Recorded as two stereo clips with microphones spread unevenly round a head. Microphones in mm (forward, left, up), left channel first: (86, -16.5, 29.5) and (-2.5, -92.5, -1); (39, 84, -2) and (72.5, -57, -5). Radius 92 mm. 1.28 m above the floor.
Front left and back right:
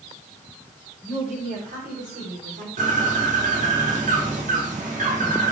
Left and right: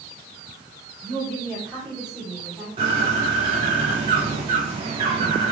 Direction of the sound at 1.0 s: 160° right.